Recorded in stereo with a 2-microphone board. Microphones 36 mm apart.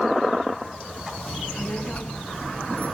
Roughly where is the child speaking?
Left.